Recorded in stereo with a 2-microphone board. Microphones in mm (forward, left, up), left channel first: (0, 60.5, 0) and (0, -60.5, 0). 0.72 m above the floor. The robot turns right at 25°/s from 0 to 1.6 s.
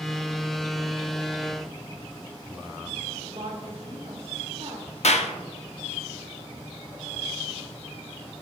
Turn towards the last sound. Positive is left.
turn(degrees=70)  # may be behind; listen again after turning